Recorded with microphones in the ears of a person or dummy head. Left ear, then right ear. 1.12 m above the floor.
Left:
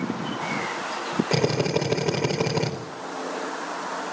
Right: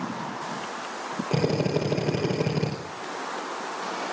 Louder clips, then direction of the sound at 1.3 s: Left 1 dB; 50° left (ahead or behind).